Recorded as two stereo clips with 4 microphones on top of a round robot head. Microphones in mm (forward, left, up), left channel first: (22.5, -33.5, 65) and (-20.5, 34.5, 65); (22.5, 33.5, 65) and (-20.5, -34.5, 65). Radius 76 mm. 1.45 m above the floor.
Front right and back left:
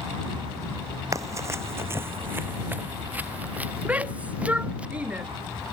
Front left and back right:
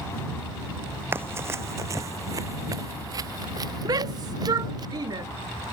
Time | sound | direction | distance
1.1 | running footsteps | 175° left | ?
3.9 | a shout | 165° right | ?